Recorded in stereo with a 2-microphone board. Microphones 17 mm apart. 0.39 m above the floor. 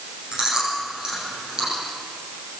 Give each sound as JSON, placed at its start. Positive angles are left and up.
{"t": 0.3, "sound": "chewing", "side_deg": -35, "distance_m": 9.5}